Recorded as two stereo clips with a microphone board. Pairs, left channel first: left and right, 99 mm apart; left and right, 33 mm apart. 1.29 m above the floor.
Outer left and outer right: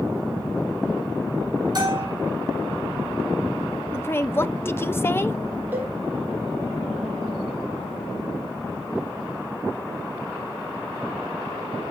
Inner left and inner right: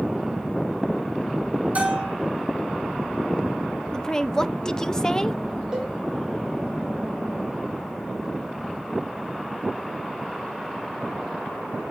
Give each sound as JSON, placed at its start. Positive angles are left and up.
{"t": 1.8, "sound": "a bell", "side_deg": -45, "distance_m": 6.0}
{"t": 3.9, "sound": "a woman speaking", "side_deg": 25, "distance_m": 0.5}
{"t": 5.7, "sound": "a cowbell", "side_deg": -20, "distance_m": 3.0}